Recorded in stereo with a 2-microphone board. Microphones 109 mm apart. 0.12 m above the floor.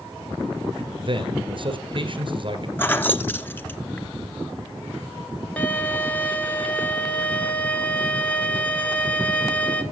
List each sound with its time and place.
1.0 s a man speaking: 50° right (ahead or behind), 1.8 m
2.8 s keys jangling: 20° left (ahead or behind), 0.8 m
5.6 s a violin: 15° left (ahead or behind), 1.1 m